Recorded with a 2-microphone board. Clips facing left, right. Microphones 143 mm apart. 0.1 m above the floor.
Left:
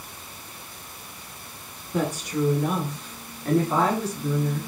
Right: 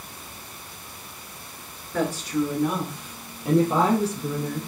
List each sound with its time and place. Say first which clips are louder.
1.9 s a woman speaking: right 1 dB; 20° left (ahead or behind), 1.2 m; by 4.7 s 40° right (ahead or behind), 1.4 m